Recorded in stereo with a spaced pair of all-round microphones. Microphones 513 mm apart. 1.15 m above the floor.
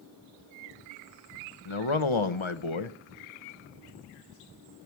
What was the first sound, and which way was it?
A man speaking, 70° left (ahead or behind).